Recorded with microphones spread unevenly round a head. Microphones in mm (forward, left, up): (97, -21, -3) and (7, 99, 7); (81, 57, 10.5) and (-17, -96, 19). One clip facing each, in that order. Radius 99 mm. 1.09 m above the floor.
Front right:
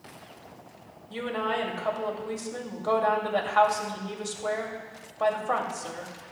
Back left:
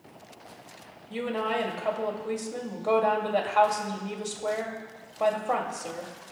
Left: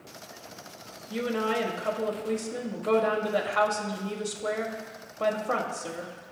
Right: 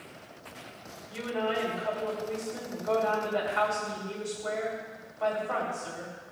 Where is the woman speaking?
55° left, 2.5 m.